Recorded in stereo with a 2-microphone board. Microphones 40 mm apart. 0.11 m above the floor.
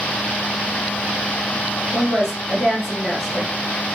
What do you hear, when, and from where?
1.9 s a woman speaking: centre (ahead or behind), 1.4 m